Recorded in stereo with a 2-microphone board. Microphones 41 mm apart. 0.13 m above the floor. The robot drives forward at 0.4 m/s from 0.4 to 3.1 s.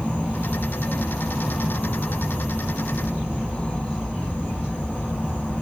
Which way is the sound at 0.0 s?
50° left (ahead or behind).